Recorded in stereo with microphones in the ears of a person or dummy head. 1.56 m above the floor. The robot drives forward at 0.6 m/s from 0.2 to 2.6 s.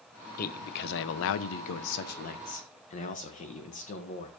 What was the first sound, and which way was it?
A man speaking, 45° left (ahead or behind).